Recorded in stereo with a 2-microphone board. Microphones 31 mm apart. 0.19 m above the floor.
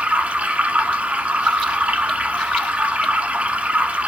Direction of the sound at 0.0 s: 55° right (ahead or behind).